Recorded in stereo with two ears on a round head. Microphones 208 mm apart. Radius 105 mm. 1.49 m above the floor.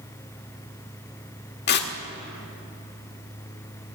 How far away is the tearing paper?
About 1.3 m.